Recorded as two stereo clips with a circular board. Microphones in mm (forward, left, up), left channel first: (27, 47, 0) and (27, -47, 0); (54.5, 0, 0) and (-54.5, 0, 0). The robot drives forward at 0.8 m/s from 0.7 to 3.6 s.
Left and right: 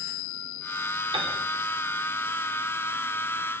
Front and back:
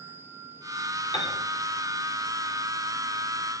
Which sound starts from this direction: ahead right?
A piano, at 1.1 s.